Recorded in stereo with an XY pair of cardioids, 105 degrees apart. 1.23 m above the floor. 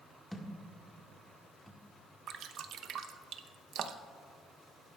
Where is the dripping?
65° right, 0.8 m.